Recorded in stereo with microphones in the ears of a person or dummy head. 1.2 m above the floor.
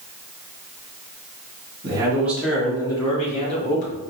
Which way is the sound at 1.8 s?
30° right (ahead or behind).